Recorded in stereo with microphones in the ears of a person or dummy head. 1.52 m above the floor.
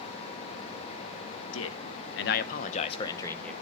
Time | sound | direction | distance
1.5 | a man speaking | 75° left (ahead or behind) | 1.4 m